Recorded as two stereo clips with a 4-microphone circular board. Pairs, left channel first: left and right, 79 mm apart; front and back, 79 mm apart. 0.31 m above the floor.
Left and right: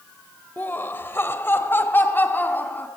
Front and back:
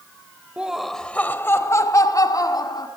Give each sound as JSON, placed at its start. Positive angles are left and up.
{"t": 0.6, "sound": "laughter", "azimuth_deg": 125, "distance_m": 1.1}